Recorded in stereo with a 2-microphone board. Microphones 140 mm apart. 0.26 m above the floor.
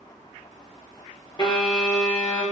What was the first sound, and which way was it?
A violin, 35° left (ahead or behind).